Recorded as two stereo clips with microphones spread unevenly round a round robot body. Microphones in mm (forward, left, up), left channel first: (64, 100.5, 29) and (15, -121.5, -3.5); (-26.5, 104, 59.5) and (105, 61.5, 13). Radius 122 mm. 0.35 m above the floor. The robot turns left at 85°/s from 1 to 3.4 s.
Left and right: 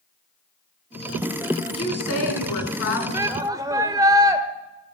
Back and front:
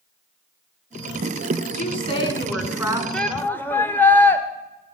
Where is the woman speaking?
155° left, 4 m; by 3.0 s 40° left, 4 m.